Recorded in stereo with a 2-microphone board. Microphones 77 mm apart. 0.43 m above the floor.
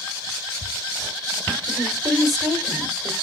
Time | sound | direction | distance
1.7 | a woman speaking | 5° right (ahead or behind) | 1.8 m